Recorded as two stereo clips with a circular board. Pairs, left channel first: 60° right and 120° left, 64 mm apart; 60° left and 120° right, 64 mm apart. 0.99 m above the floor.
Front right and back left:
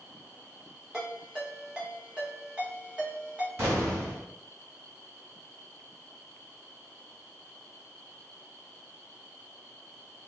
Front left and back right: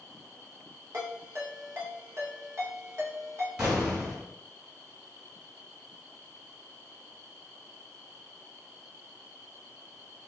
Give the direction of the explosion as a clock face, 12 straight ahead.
7 o'clock.